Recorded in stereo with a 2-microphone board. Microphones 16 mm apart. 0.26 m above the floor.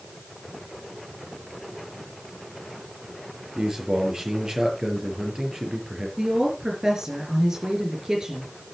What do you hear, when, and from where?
3.5 s a man speaking: 45° right (ahead or behind), 6 m
6.2 s a woman speaking: 45° right (ahead or behind), 4 m